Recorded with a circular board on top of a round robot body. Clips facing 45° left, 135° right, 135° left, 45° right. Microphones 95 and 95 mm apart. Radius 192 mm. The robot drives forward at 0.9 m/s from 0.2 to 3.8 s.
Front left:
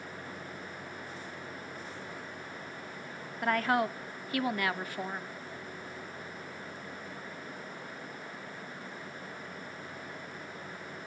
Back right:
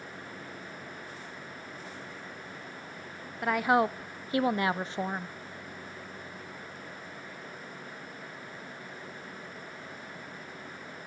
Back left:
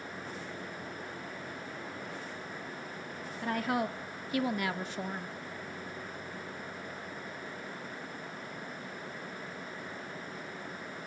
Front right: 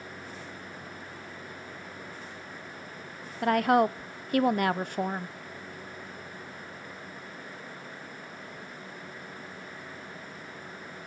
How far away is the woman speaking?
About 0.9 m.